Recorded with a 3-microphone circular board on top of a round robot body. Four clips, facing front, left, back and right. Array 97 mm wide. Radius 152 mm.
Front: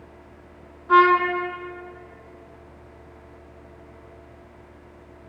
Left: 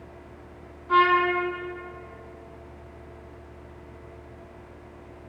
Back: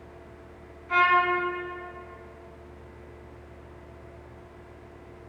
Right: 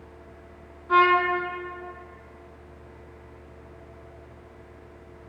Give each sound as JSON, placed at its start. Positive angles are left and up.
{"t": 0.9, "sound": "a trumpet", "azimuth_deg": 5, "distance_m": 3.5}